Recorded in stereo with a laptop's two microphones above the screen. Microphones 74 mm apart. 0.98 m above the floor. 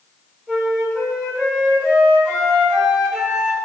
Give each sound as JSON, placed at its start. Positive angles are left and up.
{"t": 0.5, "sound": "a flute", "side_deg": 15, "distance_m": 1.4}